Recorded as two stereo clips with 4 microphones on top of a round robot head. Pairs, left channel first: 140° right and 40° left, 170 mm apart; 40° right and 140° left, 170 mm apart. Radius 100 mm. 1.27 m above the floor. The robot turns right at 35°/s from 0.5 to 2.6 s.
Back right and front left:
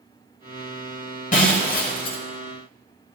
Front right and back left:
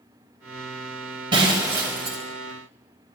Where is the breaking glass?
165° right, 1.2 m; by 2.2 s 135° right, 1.2 m.